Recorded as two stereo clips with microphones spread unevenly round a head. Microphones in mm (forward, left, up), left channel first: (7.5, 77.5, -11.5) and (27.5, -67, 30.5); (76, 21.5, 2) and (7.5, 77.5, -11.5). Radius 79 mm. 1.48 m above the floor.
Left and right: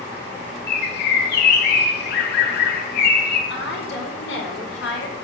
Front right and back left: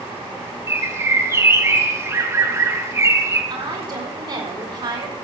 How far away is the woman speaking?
About 5 m.